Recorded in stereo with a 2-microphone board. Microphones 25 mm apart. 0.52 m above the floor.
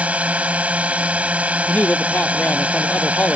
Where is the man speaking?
85° left.